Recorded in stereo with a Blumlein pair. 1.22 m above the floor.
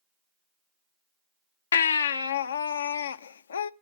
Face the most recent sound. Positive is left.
turn(degrees=65)